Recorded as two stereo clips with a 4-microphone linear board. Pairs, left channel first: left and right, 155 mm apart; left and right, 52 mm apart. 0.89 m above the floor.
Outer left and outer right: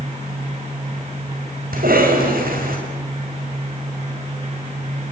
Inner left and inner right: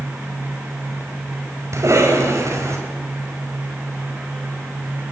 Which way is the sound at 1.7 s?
65° right (ahead or behind).